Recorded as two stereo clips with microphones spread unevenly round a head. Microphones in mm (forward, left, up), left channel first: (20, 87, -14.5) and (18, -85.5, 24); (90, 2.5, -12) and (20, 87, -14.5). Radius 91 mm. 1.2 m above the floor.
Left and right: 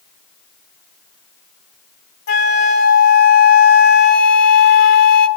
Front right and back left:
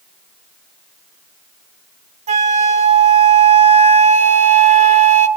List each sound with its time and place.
2.3 s a flute: 130° left, 1.5 m